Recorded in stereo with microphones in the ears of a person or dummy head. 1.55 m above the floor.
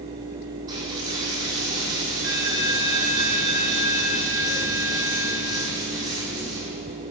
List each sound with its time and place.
0.7 s a dropped coin: 25° right (ahead or behind), 4.5 m